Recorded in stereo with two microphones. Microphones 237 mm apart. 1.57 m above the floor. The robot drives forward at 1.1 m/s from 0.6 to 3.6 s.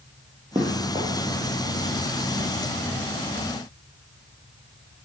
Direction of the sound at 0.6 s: 20° right (ahead or behind).